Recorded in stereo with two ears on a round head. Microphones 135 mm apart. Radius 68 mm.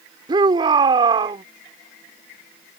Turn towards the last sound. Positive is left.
turn(degrees=-30)  # may be behind; listen again after turning